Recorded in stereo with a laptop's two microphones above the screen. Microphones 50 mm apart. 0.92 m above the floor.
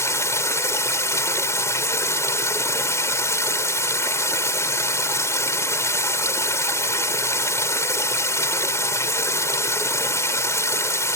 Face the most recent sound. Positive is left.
turn(degrees=70)  # may be behind; listen again after turning